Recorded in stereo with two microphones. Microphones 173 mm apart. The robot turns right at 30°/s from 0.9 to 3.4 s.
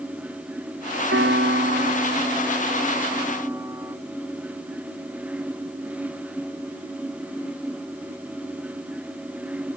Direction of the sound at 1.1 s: 85° right.